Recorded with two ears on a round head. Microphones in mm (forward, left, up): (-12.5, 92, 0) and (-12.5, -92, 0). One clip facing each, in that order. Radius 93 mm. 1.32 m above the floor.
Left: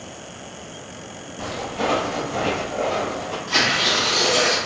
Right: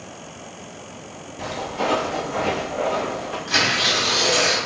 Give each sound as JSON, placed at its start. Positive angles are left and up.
{"t": 1.4, "sound": "footsteps", "side_deg": -5, "distance_m": 1.5}
{"t": 3.5, "sound": "tearing paper", "side_deg": -25, "distance_m": 1.0}